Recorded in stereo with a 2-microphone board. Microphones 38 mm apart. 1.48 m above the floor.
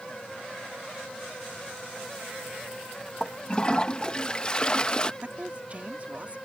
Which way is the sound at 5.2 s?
35° right (ahead or behind).